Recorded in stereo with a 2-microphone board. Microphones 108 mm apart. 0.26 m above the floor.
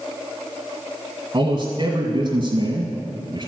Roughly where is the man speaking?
Right.